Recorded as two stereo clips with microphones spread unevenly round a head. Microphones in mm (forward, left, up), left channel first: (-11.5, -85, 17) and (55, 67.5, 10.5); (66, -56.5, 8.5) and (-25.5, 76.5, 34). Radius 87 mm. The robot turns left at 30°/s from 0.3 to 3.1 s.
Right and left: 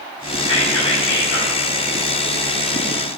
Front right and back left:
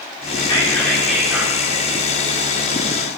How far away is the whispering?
About 1.5 m.